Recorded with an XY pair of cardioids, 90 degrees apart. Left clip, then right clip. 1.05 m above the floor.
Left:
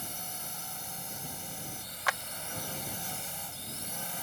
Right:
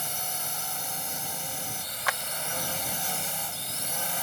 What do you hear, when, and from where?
0.0 s a drone: 55° right
2.1 s a clap: 15° right